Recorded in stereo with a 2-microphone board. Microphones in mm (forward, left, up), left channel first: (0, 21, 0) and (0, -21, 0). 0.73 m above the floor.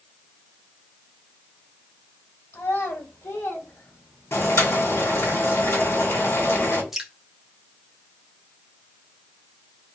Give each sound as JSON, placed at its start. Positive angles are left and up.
{"t": 2.5, "sound": "a child speaking", "side_deg": 80, "distance_m": 2.5}
{"t": 4.3, "sound": "boiling", "side_deg": 70, "distance_m": 2.5}
{"t": 6.9, "sound": "dripping", "side_deg": -10, "distance_m": 0.9}